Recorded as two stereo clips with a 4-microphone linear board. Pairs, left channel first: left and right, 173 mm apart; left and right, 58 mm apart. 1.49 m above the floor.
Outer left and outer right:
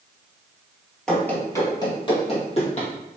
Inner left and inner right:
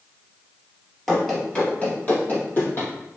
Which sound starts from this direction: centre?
Running footsteps, at 1.1 s.